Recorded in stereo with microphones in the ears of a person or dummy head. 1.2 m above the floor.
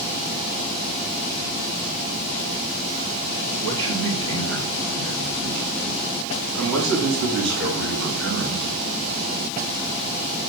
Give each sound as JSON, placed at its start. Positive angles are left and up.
{"t": 3.6, "sound": "a man speaking", "side_deg": -85, "distance_m": 6.5}